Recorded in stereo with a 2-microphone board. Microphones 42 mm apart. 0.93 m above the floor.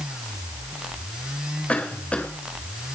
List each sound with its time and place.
1.7 s a cough: 30° left (ahead or behind), 3 m